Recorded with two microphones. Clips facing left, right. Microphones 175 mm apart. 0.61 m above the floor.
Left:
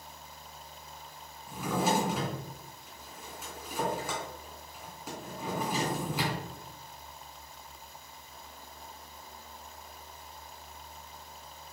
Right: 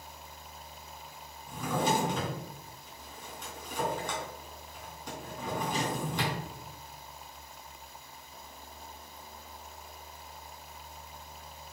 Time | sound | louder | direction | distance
1.5 | a drawer | even | 5° left (ahead or behind) | 3.5 m